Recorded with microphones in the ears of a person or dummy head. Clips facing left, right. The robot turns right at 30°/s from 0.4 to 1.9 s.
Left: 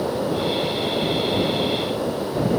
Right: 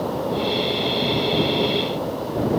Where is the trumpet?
No trumpet in this recording.